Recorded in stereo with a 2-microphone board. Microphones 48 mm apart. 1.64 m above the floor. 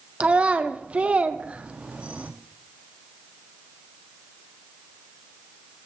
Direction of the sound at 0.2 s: 25° right (ahead or behind).